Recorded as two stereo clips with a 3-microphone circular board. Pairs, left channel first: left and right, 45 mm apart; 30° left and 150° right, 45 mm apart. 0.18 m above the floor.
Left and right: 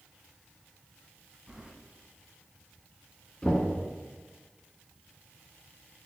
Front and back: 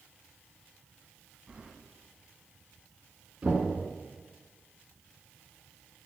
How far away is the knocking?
About 1.6 m.